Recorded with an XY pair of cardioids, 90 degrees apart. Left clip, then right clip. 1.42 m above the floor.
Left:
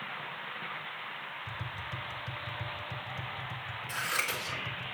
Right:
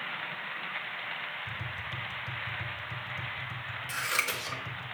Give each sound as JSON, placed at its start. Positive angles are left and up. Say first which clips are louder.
{"t": 1.5, "sound": "tapping", "louder": "right 2 dB", "azimuth_deg": 5, "distance_m": 0.8}
{"t": 3.9, "sound": "scissors", "louder": "right 2 dB", "azimuth_deg": -65, "distance_m": 2.0}